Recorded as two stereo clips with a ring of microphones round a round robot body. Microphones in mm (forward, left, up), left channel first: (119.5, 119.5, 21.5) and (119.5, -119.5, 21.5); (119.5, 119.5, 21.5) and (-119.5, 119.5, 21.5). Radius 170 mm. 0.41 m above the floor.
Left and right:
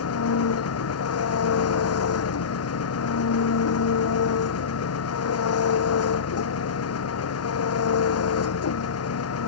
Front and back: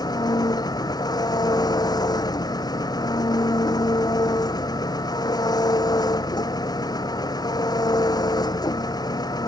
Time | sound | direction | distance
0.0 | an engine running | 75° left | ?